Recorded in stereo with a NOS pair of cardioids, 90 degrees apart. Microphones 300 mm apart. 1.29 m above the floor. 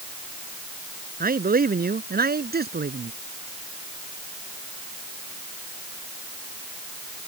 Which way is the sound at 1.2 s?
25° right.